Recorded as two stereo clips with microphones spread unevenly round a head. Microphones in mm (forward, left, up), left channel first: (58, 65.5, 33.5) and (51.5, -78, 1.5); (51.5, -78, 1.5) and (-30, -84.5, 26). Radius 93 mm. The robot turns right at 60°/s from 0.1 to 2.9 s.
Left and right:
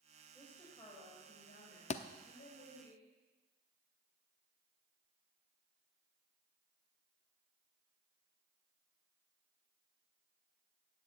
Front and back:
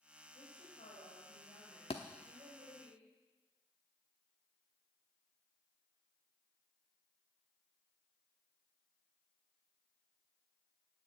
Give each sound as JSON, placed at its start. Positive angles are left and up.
{"t": 0.3, "sound": "a woman speaking", "azimuth_deg": 0, "distance_m": 4.0}
{"t": 1.9, "sound": "a thud", "azimuth_deg": 60, "distance_m": 0.8}